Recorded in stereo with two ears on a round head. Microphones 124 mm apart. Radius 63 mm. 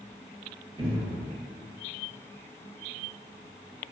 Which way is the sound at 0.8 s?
40° right (ahead or behind).